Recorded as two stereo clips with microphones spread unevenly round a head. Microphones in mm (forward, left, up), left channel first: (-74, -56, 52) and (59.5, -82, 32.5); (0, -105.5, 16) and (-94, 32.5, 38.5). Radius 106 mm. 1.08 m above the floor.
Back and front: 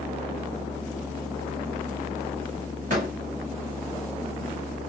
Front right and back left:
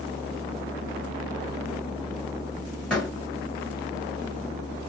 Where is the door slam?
30° left, 1.6 m.